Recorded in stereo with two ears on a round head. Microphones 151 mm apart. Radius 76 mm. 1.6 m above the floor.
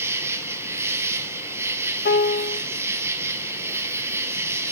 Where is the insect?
15° right (ahead or behind), 0.8 m.